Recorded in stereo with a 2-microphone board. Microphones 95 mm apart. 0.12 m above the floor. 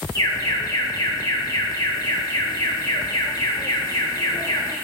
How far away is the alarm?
About 1.3 m.